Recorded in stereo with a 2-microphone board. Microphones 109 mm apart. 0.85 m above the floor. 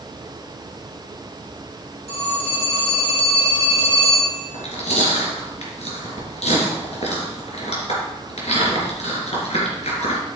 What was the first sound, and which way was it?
A phone ringing, 70° left (ahead or behind).